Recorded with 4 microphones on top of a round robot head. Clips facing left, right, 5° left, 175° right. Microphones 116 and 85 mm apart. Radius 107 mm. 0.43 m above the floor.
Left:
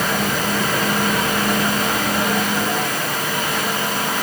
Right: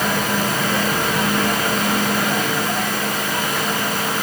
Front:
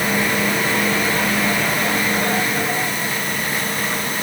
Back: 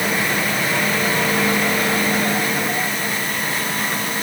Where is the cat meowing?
No cat meowing in this recording.